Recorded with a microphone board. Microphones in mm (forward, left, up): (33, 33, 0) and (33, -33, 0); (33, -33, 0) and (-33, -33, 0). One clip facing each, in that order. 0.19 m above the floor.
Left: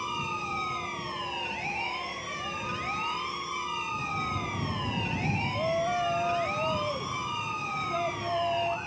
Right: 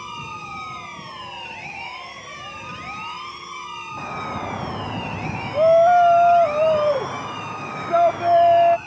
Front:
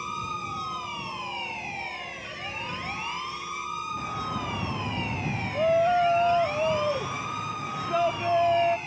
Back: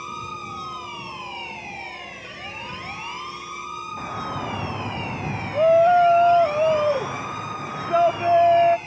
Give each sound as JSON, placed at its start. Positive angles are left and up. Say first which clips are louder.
{"t": 4.0, "sound": "a shout", "louder": "right 4 dB, back 2 dB", "azimuth_deg": -120}